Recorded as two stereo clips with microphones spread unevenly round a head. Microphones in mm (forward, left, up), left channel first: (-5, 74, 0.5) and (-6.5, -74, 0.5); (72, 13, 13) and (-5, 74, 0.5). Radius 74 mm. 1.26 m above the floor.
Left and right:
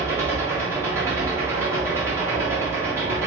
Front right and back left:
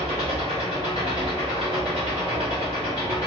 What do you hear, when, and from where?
0.0 s an engine running: 165° right, 1.4 m